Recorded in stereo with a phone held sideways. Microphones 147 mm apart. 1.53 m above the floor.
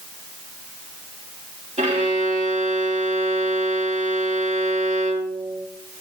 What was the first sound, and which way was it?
A violin, 50° right (ahead or behind).